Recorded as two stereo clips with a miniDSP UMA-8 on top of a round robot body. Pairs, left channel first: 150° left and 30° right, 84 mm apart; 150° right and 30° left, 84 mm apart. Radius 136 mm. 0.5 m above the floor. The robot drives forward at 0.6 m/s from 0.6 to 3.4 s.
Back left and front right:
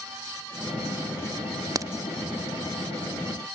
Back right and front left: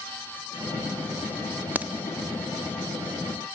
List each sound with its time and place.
1.8 s a crack: 30° right, 0.8 m; by 1.9 s 35° right, 0.8 m